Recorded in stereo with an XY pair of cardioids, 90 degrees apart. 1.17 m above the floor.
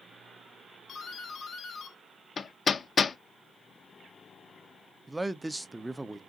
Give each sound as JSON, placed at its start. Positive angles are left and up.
{"t": 0.9, "sound": "a doorbell", "azimuth_deg": 60, "distance_m": 1.4}
{"t": 2.4, "sound": "hammering", "azimuth_deg": 50, "distance_m": 0.7}
{"t": 5.1, "sound": "a man speaking", "azimuth_deg": -10, "distance_m": 0.6}